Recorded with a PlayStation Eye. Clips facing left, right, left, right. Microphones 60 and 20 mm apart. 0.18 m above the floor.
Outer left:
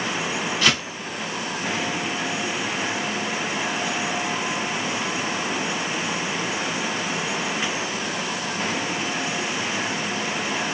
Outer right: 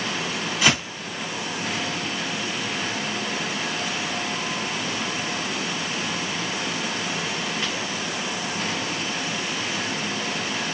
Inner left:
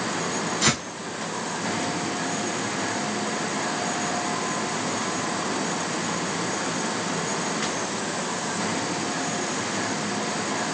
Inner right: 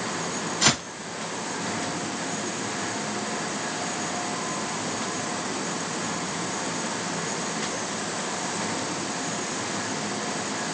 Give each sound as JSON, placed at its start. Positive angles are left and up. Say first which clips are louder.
{"t": 0.6, "sound": "footsteps", "louder": "outer right 1 dB, inner right 2 dB", "side_deg": -15, "distance_m": 3.0}